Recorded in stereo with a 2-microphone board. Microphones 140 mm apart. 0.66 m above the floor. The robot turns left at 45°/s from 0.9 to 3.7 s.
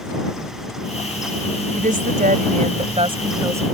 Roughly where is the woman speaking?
Right.